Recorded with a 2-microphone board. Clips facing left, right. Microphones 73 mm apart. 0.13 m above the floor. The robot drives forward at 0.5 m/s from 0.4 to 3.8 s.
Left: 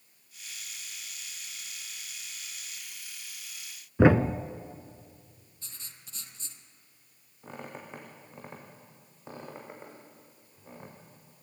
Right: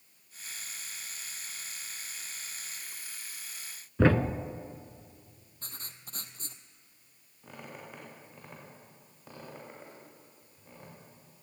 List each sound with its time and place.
4.0 s a thud: 15° left (ahead or behind), 0.7 m
5.6 s writing: 45° right (ahead or behind), 1.5 m
7.4 s a squeak: 20° left (ahead or behind), 6 m